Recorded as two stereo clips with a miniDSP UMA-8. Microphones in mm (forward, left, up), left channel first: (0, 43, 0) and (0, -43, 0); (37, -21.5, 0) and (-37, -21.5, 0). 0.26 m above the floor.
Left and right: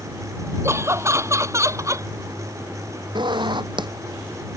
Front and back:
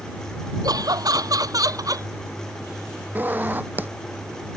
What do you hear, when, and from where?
0.6 s laughter: 150° right; by 2.1 s 145° right
3.1 s a zipper: 115° right